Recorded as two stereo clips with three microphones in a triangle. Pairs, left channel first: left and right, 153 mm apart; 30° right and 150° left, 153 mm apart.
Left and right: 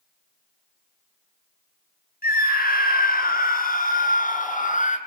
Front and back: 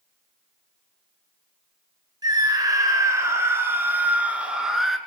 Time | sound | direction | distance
2.2 | a scream | 85° left | 5 m